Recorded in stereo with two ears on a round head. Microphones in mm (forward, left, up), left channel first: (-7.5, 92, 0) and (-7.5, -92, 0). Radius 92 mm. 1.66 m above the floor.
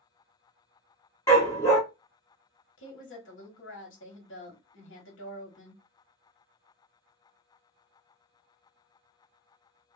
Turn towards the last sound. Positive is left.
turn(degrees=65)  # may be behind; listen again after turning